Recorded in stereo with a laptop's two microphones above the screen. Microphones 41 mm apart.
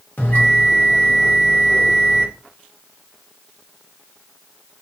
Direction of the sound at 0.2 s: 45° left (ahead or behind).